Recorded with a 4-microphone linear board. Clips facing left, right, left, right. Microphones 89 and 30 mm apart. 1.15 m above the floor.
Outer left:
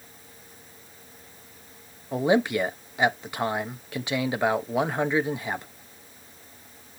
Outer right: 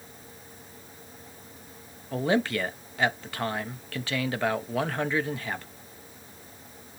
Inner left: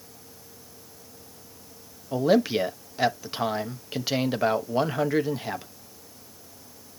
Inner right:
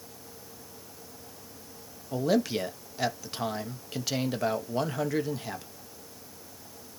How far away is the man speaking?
About 1.0 m.